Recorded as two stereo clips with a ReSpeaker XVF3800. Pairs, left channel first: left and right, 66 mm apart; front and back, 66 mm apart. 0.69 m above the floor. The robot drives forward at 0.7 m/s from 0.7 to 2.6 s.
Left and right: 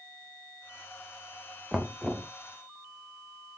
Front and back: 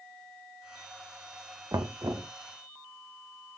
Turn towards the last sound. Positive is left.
turn(degrees=-175)